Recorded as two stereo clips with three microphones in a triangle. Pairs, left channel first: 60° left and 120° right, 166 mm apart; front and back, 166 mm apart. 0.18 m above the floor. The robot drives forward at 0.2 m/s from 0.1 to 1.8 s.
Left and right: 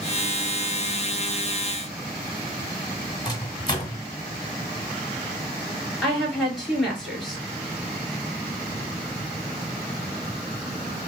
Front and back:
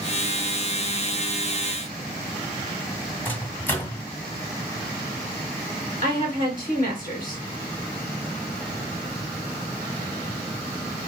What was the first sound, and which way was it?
A microwave, 65° left.